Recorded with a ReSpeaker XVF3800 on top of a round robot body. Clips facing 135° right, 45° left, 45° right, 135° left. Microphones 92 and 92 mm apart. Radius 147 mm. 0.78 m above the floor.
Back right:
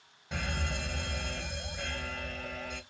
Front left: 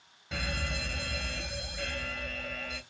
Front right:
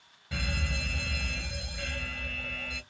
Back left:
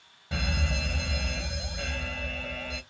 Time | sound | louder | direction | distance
0.3 | a fire alarm | even, back left 4 dB | 145° left | 1.6 m